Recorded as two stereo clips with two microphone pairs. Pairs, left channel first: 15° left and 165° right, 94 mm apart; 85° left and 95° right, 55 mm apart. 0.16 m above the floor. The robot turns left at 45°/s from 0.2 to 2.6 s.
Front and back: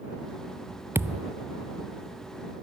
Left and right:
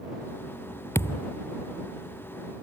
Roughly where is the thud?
Behind left.